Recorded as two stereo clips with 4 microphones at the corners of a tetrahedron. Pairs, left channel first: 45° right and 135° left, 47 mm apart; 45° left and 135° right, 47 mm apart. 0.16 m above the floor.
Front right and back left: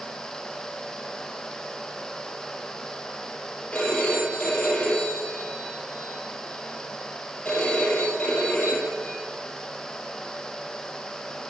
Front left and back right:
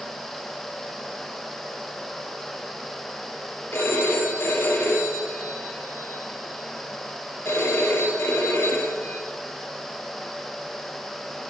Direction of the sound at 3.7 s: 25° left.